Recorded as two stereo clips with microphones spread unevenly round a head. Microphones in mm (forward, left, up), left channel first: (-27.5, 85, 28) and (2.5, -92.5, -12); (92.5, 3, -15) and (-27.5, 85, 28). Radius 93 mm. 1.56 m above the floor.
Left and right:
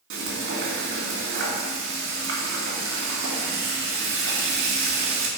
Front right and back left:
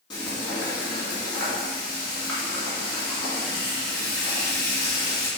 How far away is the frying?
About 2 m.